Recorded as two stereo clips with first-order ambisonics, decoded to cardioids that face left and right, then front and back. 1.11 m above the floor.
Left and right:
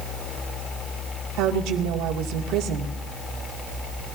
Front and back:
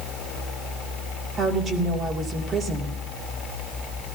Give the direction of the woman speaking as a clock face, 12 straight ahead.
4 o'clock.